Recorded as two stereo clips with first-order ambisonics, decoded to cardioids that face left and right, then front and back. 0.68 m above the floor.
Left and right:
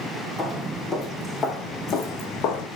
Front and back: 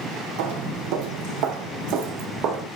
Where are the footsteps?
Straight behind, 2.5 m; by 2.7 s 125° left, 2.5 m.